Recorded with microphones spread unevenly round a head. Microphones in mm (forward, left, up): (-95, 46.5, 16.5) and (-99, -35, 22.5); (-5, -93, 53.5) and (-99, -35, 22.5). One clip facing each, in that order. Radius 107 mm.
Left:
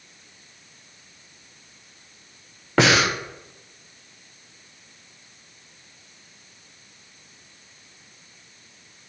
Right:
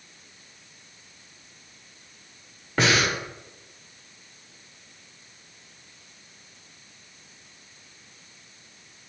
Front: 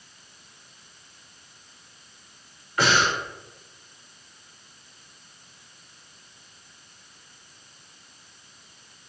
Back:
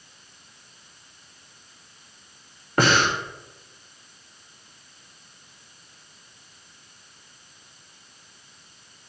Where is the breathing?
100° left, 0.7 m.